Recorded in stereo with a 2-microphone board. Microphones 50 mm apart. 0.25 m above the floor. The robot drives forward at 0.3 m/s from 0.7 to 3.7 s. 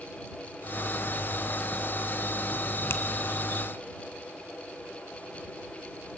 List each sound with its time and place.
2.9 s a finger snap: 50° left (ahead or behind), 1.6 m